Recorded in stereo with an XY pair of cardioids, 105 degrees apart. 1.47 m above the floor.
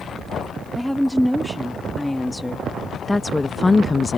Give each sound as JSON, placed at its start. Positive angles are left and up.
{"t": 0.8, "sound": "a woman speaking", "azimuth_deg": 0}